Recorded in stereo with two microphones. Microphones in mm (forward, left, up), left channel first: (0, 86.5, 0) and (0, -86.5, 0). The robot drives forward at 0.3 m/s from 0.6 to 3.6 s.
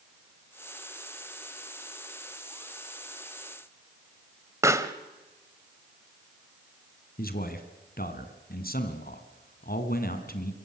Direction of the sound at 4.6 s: 15° right (ahead or behind).